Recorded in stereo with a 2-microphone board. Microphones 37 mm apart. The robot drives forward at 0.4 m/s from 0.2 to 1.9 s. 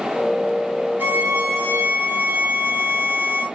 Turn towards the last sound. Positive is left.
turn(degrees=-75)  # may be behind; listen again after turning